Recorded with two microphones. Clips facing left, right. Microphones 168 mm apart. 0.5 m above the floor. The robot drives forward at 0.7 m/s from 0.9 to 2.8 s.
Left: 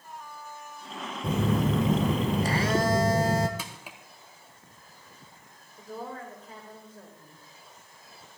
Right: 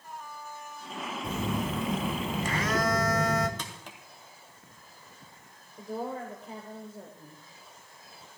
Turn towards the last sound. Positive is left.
turn(degrees=-20)  # may be behind; listen again after turning